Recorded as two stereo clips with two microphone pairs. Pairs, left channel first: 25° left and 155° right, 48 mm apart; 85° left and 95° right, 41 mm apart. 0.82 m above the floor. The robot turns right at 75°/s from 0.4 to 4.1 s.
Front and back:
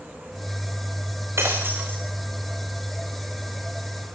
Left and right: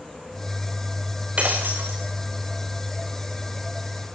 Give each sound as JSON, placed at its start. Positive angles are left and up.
{"t": 1.4, "sound": "breaking glass", "azimuth_deg": -150, "distance_m": 4.0}